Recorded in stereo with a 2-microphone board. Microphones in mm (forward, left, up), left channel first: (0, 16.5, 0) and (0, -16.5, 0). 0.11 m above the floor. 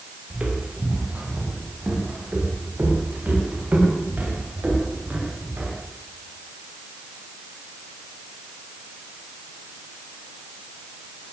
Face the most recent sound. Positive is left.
turn(degrees=-60)  # may be behind; listen again after turning